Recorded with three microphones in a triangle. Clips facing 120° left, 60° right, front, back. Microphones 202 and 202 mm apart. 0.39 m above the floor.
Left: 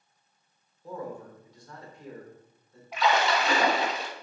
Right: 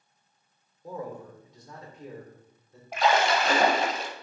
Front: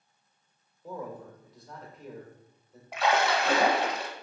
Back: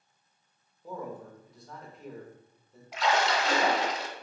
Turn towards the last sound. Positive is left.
turn(degrees=-25)